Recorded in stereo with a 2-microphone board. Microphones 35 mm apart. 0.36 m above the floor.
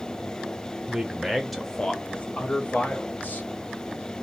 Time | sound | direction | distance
0.9 | a man speaking | 25° right (ahead or behind) | 1.0 m